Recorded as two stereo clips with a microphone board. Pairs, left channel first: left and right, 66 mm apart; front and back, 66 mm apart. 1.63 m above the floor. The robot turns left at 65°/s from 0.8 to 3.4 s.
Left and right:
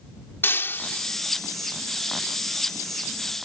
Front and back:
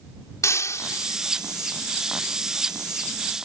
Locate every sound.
0.4 s breaking glass: 40° left; by 1.2 s 10° left